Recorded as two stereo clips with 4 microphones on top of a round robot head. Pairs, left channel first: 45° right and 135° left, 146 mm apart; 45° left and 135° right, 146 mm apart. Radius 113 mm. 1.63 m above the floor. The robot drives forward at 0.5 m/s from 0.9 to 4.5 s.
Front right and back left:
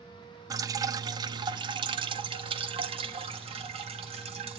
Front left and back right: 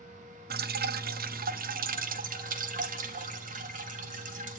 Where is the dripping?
155° right, 0.9 m; by 4.6 s 170° right, 2.5 m.